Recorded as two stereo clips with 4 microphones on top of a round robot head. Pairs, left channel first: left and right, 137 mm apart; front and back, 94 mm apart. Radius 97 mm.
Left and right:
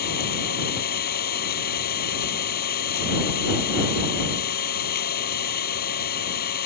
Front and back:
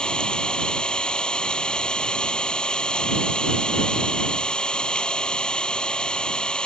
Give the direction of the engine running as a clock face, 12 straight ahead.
9 o'clock.